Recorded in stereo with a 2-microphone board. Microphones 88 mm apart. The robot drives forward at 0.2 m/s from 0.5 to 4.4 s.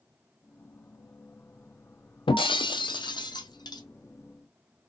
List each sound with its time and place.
2.3 s breaking glass: 75° left (ahead or behind), 0.5 m; by 3.8 s 50° left (ahead or behind), 0.7 m